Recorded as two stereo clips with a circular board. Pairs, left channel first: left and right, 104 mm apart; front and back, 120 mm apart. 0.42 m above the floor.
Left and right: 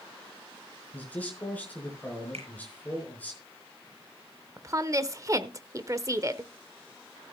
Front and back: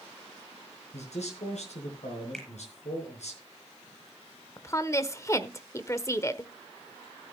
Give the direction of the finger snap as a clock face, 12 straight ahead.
3 o'clock.